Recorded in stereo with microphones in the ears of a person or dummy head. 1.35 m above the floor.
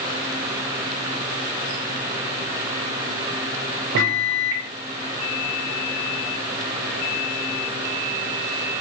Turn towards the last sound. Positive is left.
turn(degrees=-60)  # may be behind; listen again after turning